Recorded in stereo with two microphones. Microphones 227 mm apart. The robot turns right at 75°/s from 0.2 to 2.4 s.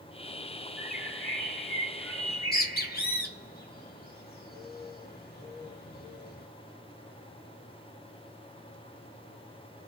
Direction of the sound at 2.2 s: 55° left (ahead or behind).